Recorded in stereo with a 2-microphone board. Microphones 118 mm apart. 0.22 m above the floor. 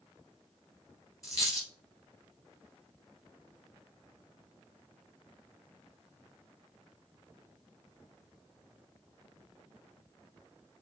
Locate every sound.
1.2 s a dropped coin: 30° left (ahead or behind), 1.8 m